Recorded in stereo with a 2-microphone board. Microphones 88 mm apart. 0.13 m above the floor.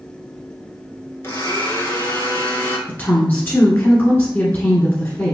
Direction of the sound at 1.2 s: 30° left (ahead or behind).